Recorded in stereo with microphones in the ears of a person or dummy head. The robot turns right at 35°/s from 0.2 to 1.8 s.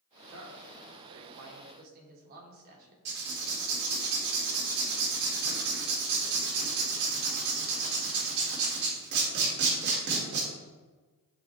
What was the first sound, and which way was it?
A man speaking, 105° right.